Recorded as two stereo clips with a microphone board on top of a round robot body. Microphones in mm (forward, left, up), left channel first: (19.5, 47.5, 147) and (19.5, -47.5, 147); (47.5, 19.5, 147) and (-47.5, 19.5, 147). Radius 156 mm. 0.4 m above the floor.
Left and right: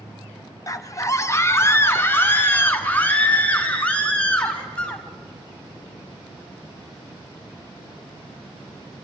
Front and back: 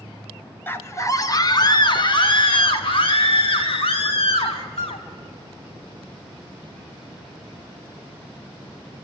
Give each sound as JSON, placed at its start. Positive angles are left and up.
{"t": 0.7, "sound": "a scream", "azimuth_deg": 55, "distance_m": 1.3}